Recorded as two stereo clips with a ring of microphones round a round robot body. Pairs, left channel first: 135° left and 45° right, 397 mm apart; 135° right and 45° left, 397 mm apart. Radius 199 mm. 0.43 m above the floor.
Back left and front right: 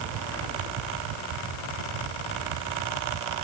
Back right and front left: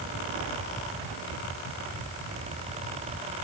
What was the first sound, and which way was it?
Only background noise.